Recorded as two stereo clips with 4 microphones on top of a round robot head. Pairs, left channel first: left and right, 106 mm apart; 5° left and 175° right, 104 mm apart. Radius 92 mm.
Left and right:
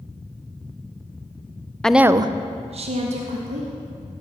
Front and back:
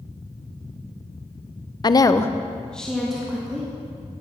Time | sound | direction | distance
1.8 | a woman speaking | 10° left | 0.5 m